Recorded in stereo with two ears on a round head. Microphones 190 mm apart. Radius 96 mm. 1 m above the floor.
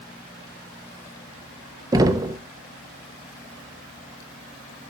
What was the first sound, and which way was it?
Knocking, 20° right (ahead or behind).